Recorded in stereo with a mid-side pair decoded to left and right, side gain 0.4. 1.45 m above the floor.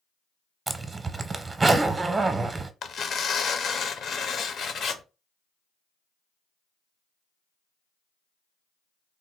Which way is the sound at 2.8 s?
60° left.